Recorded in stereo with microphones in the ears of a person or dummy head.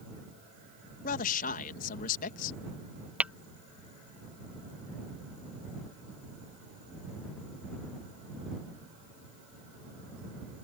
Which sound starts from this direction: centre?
Tapping, at 3.2 s.